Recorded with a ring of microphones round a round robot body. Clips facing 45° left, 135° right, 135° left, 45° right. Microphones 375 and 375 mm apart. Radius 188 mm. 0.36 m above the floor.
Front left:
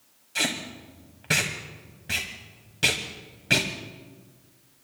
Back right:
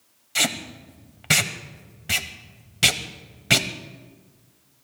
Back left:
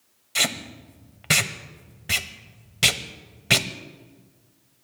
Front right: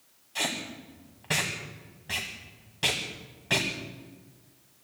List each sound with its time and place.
0.3 s tape being pulled: 165° left, 1.1 m